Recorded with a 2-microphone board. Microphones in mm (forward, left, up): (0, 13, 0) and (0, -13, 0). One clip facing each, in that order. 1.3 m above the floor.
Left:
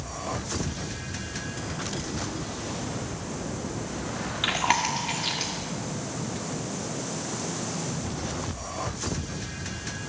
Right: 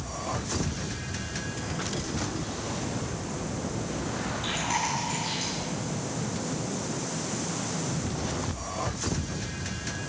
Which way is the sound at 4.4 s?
60° left (ahead or behind).